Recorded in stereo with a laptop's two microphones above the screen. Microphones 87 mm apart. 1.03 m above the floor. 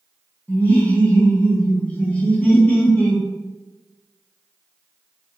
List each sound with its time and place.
0.5 s laughter: 15° left (ahead or behind), 0.9 m